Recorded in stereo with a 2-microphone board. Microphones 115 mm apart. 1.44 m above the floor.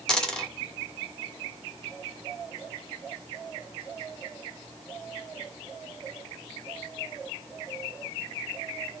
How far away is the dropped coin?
About 1.1 m.